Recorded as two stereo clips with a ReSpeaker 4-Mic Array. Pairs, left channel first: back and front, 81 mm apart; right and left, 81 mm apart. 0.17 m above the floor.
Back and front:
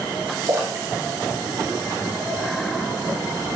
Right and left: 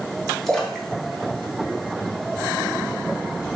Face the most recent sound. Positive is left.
turn(degrees=-5)